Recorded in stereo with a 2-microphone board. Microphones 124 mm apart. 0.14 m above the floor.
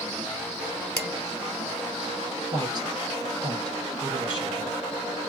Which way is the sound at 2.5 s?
40° right (ahead or behind).